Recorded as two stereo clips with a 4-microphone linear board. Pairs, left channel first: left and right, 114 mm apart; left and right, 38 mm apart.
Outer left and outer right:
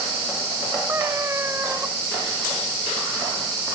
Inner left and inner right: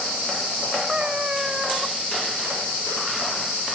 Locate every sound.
0.9 s a cat meowing: 20° right (ahead or behind)